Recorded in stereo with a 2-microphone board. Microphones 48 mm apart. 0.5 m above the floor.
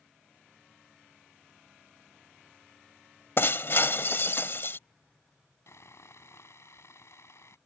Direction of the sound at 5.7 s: 75° left (ahead or behind).